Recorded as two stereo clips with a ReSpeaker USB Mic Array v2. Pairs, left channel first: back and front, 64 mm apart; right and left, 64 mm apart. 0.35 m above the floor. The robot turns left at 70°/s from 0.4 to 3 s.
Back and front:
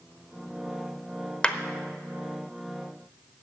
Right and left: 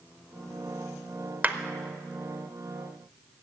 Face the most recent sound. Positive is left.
turn(degrees=10)